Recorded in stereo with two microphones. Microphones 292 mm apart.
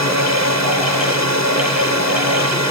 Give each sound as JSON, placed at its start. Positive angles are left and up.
{"t": 0.0, "sound": "a drone", "side_deg": -65}